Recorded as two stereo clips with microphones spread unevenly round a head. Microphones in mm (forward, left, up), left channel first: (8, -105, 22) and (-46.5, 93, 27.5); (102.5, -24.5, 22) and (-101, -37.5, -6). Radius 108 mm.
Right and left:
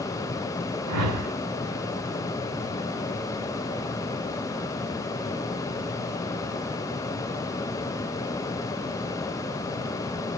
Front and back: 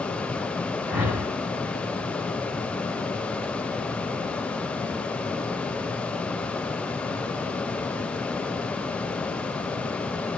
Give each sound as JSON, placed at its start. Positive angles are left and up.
{"t": 0.9, "sound": "a whoosh", "azimuth_deg": 100, "distance_m": 1.7}